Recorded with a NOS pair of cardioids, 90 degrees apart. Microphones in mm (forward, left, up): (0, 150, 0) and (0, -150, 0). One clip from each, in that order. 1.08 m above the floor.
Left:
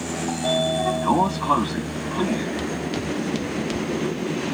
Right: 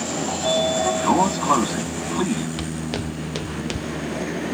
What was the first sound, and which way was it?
A sliding door, 10° right.